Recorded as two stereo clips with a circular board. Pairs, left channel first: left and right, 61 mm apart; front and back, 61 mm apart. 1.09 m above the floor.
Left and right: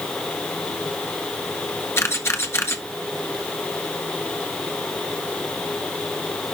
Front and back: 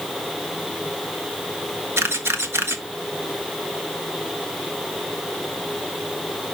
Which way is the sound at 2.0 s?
135° left.